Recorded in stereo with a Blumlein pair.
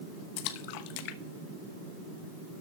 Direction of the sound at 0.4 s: 45° left.